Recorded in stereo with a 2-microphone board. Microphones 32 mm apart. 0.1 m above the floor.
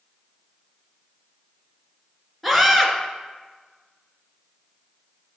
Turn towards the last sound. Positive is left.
turn(degrees=5)  # may be behind; listen again after turning